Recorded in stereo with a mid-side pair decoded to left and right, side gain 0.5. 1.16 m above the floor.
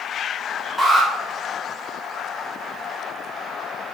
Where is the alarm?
5° left, 3 m.